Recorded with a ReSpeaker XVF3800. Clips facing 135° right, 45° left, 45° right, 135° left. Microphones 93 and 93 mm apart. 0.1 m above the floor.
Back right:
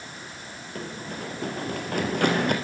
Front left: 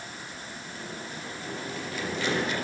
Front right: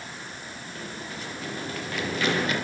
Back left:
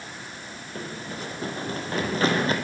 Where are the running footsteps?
170° right, 4 m.